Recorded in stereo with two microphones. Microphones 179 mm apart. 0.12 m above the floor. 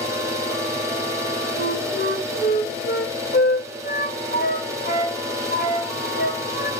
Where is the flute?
60° left (ahead or behind), 2.5 m.